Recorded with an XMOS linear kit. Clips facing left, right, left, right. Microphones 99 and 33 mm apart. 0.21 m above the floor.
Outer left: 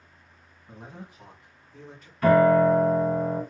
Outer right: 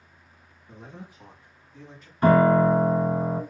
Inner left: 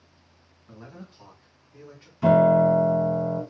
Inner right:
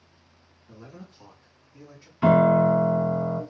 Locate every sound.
0.7 s a man speaking: 50° left (ahead or behind), 2 m; by 2.1 s 60° left (ahead or behind), 2 m
2.2 s a piano: 30° right (ahead or behind), 1.1 m